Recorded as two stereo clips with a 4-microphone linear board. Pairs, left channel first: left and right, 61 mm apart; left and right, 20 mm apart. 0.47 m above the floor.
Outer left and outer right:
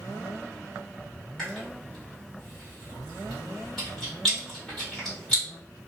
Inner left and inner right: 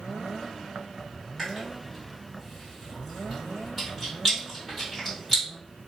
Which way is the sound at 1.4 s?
5° left (ahead or behind).